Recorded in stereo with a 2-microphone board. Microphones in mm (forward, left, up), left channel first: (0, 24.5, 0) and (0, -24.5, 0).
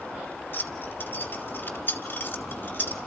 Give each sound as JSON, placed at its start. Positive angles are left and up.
{"t": 0.5, "sound": "keys jangling", "side_deg": 50, "distance_m": 2.0}